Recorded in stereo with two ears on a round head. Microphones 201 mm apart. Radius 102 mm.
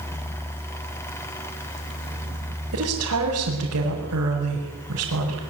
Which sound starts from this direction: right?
A woman speaking, at 2.7 s.